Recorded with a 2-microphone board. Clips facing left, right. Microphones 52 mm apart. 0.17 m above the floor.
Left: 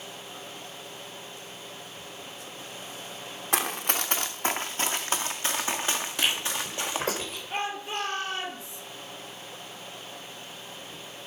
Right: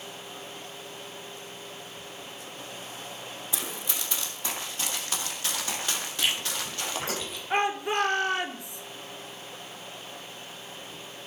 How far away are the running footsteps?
About 1.0 m.